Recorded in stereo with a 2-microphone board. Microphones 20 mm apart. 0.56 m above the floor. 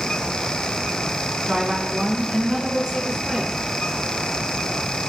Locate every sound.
1.5 s a woman speaking: 55° right (ahead or behind), 4 m; by 3.5 s 45° right (ahead or behind), 5.5 m